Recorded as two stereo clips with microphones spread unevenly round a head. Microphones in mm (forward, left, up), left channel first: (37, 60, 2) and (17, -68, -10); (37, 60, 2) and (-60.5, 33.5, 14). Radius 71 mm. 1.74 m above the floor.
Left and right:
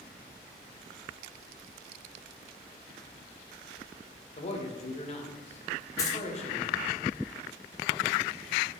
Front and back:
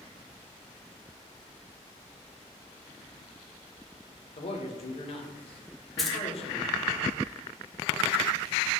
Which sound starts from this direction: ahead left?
A man speaking, at 4.4 s.